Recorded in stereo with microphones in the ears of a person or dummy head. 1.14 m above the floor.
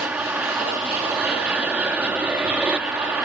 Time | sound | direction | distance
0.0 | an aircraft | 5° right (ahead or behind) | ?